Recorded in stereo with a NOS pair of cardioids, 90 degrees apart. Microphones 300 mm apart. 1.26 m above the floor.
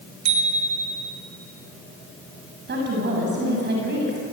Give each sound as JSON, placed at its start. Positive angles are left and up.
{"t": 0.2, "sound": "a bicycle bell", "azimuth_deg": -65, "distance_m": 3.5}
{"t": 2.7, "sound": "a woman speaking", "azimuth_deg": -35, "distance_m": 7.0}